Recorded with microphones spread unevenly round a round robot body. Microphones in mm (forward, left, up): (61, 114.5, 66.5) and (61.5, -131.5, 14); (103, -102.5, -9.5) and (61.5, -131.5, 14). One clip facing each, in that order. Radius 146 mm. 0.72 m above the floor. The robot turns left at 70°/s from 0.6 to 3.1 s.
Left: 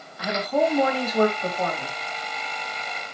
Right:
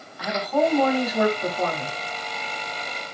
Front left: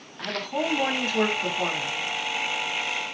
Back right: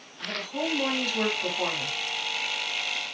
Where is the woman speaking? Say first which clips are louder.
Even, front left 3 dB; 20° left, 1.7 m; by 2.0 s 75° right, 1.7 m.